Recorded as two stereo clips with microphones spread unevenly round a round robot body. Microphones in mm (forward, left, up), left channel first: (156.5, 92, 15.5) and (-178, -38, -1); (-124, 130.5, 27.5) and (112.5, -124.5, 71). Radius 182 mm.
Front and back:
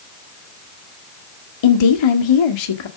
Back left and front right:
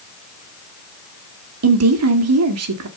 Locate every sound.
1.6 s a woman speaking: 5° left, 1.9 m